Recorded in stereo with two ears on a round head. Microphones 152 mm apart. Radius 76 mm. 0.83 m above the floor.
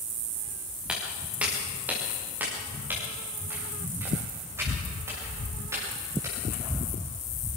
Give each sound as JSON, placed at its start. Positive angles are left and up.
{"t": 0.9, "sound": "footsteps", "side_deg": -5, "distance_m": 5.5}